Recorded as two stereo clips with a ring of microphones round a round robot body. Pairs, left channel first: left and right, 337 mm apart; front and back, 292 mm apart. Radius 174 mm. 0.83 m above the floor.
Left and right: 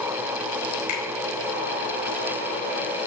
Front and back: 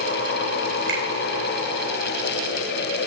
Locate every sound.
0.9 s a finger snap: 130° left, 3.5 m